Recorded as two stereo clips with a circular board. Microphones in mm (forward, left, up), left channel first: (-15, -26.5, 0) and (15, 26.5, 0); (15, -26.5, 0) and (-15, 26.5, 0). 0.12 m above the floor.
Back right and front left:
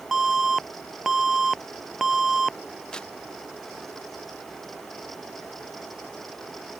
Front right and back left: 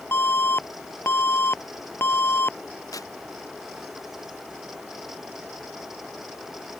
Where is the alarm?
20° right.